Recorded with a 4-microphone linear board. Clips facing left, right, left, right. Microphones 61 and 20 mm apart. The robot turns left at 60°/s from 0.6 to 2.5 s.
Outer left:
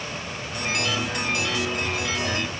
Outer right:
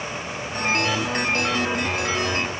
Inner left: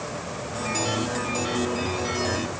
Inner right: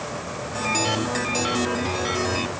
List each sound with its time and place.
Only background noise.